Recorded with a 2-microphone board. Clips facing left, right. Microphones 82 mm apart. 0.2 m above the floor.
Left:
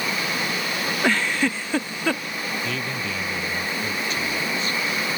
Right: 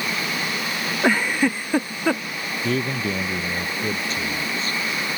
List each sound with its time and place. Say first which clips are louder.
1.0 s a giggle: right 3 dB; 10° right (ahead or behind)
2.6 s a man speaking: right 5 dB; 35° right (ahead or behind)